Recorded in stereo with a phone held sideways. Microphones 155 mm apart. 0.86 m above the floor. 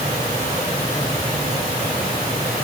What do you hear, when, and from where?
Only background noise.